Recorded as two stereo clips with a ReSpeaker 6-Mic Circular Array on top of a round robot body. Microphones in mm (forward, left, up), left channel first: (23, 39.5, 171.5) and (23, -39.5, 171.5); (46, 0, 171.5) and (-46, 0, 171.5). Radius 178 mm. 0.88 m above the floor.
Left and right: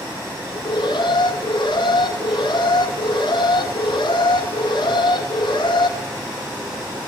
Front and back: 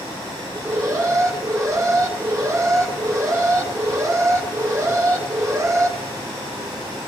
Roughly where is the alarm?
Behind left.